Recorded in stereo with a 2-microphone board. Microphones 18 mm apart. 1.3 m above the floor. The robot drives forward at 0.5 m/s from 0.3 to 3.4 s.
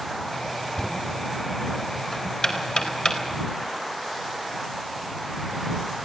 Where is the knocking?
45° left (ahead or behind), 4.5 m; by 3.4 s 60° left (ahead or behind), 4 m.